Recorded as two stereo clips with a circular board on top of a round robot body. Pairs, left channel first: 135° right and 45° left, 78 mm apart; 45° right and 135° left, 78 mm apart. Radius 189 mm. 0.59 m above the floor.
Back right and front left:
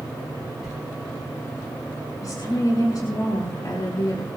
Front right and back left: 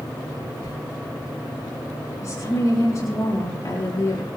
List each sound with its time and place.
0.6 s a sliding door: 40° right, 5 m
2.2 s a woman speaking: 95° right, 7.5 m